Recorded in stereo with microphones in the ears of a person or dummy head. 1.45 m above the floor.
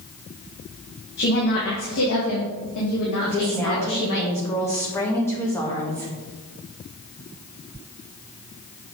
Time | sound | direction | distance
1.2 | a woman speaking | 50° left (ahead or behind) | 1.4 m
3.2 | a woman speaking | 10° left (ahead or behind) | 1.7 m